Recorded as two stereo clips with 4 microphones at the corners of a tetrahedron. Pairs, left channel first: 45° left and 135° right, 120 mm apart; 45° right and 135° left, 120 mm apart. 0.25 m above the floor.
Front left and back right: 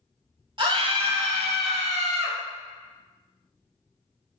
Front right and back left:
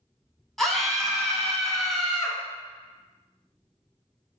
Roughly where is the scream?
Behind right.